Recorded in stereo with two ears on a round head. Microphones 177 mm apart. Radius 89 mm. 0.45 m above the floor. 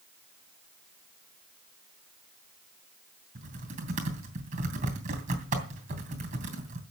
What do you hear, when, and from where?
3.4 s typing on a keyboard: 40° right (ahead or behind), 3 m